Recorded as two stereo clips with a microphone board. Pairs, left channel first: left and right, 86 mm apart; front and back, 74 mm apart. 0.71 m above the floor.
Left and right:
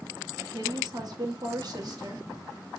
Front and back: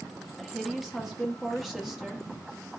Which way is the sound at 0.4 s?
95° right.